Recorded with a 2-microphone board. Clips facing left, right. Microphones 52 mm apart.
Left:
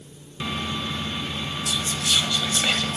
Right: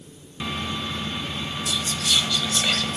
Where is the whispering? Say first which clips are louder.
Even; 10° left (ahead or behind), 0.9 m.